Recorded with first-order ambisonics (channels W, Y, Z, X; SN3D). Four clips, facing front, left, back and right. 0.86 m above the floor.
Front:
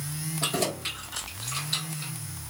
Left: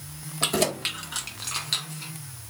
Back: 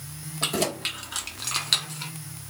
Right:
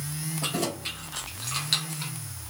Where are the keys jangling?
115° left, 1.4 m; by 2.1 s 150° right, 1.0 m.